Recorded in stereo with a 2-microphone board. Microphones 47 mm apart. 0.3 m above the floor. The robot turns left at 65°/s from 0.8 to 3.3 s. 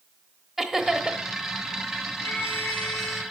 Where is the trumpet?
60° left, 4 m; by 3.2 s 5° right, 4 m.